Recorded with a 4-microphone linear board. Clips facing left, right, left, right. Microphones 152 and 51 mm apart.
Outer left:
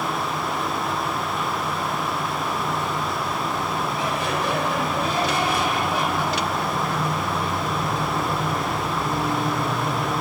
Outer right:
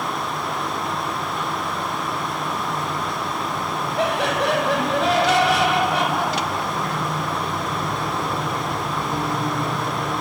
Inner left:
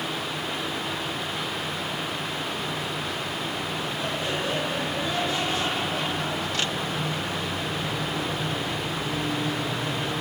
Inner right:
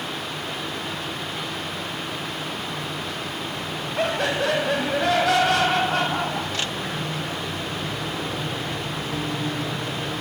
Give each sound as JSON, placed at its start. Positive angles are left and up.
{"t": 4.0, "sound": "laughter", "side_deg": -70, "distance_m": 4.5}